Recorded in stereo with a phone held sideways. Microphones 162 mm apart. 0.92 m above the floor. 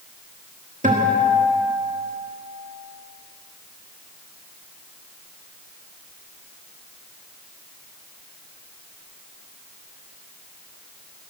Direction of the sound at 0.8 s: 50° right (ahead or behind).